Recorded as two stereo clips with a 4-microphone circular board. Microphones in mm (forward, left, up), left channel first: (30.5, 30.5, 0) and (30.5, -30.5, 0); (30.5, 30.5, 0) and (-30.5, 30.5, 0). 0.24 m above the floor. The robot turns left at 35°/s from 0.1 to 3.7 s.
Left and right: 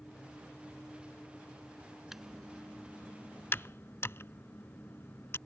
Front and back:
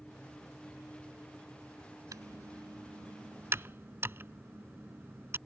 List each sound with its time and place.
2.1 s typing on a keyboard: 170° right; by 5.4 s 130° left